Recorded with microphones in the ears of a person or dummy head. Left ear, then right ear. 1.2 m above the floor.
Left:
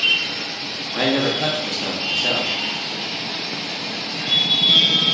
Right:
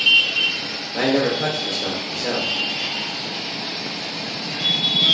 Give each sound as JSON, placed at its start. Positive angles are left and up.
{"t": 0.9, "sound": "a man speaking", "side_deg": 5, "distance_m": 0.7}